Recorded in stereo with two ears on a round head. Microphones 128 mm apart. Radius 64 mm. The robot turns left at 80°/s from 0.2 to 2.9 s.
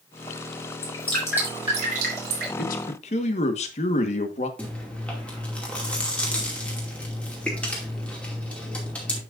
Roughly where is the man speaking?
Left.